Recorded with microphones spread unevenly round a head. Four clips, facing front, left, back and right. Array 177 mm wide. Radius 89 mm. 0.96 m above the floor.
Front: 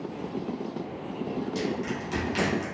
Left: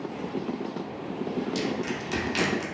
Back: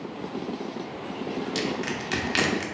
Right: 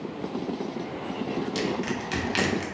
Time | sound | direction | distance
1.6 | crushing | 95° right | 0.8 m